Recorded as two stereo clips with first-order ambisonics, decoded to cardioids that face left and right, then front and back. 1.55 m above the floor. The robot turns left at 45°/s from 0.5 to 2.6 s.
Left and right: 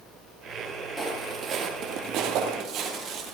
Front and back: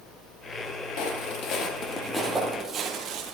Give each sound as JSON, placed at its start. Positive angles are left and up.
{"t": 1.0, "sound": "footsteps", "azimuth_deg": 5, "distance_m": 2.5}